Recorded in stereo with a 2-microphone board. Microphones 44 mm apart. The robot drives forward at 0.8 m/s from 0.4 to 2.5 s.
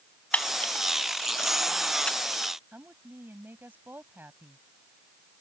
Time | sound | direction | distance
0.3 | a camera shutter | 30° left (ahead or behind) | ?
2.7 | a woman speaking | 45° right (ahead or behind) | ?